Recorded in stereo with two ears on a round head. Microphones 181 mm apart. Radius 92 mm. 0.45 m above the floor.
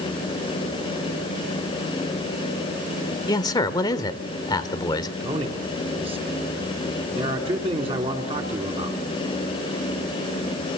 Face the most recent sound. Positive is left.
turn(degrees=-30)  # may be behind; listen again after turning